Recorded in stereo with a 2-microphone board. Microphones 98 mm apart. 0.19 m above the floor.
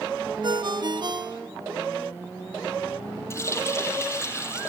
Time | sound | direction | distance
0.4 | a ringtone | 50° right (ahead or behind) | 2 m
3.3 | a running tap | 30° left (ahead or behind) | 4 m